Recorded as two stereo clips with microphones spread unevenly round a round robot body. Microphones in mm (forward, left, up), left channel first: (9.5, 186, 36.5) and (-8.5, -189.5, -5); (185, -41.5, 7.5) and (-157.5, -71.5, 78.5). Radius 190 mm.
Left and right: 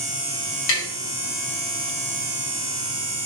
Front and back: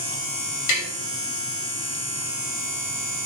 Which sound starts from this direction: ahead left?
Tapping, at 0.7 s.